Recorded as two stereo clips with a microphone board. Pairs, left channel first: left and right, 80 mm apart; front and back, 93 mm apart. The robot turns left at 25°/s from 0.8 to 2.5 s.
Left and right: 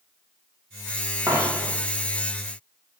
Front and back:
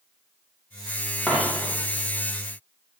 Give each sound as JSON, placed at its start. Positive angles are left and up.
{"t": 1.3, "sound": "a dropped coin", "azimuth_deg": -75, "distance_m": 1.0}